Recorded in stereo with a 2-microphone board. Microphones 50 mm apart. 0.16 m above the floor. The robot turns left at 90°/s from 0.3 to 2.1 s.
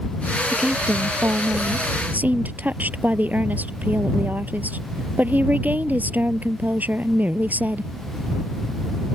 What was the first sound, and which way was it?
A woman speaking, straight ahead.